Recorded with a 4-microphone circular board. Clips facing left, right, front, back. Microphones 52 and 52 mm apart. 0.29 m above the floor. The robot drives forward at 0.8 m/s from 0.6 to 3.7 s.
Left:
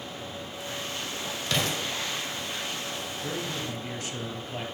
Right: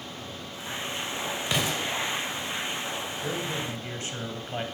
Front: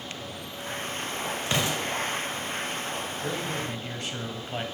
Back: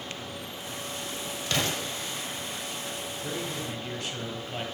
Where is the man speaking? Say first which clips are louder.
Right 1 dB, front 2 dB; 50° right, 1.2 m; by 4.7 s 80° right, 1.1 m.